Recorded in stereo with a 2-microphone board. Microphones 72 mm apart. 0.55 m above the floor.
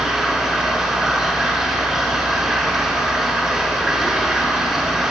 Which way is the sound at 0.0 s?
5° right (ahead or behind).